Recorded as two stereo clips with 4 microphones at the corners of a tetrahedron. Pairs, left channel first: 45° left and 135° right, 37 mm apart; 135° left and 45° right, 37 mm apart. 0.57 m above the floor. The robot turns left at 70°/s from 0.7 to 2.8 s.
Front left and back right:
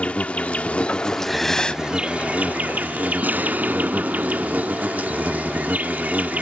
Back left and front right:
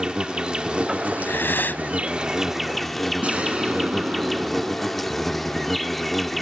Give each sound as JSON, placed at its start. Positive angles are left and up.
{"t": 0.0, "sound": "an insect", "azimuth_deg": 5}
{"t": 1.2, "sound": "breathing", "azimuth_deg": 145}
{"t": 3.2, "sound": "an explosion", "azimuth_deg": -100}